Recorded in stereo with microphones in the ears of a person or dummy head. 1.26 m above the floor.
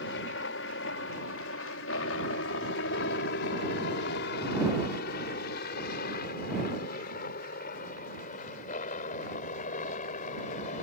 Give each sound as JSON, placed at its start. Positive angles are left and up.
{"t": 0.0, "sound": "a helicopter", "side_deg": 60}